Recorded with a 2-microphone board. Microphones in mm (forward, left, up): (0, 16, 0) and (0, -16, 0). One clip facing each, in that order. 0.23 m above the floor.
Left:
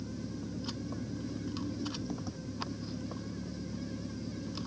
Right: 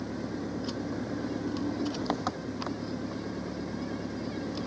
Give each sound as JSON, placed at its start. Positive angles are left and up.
{"t": 0.0, "sound": "an engine running", "side_deg": -80}